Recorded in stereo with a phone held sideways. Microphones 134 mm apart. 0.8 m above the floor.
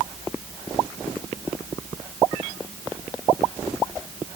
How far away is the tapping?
No tapping in this recording.